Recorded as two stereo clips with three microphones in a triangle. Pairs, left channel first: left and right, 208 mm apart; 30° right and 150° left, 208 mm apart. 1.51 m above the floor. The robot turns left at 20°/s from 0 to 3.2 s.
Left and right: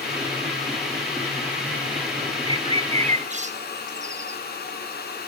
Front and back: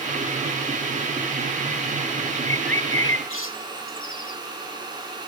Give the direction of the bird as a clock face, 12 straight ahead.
1 o'clock.